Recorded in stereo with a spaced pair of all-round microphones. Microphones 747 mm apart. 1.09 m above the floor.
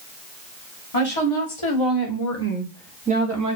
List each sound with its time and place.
0.9 s a woman speaking: 50° left (ahead or behind), 1.4 m; by 3.6 s 30° right (ahead or behind), 0.8 m